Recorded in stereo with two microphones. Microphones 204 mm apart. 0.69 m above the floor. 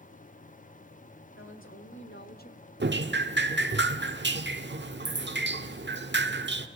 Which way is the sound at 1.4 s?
80° left.